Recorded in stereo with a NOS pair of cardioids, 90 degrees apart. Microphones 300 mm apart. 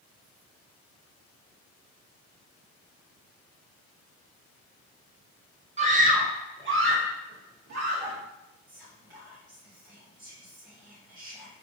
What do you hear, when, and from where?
5.8 s a scream: 20° right, 1.3 m; by 8.2 s 65° right, 1.7 m
8.7 s whispering: 15° right, 1.5 m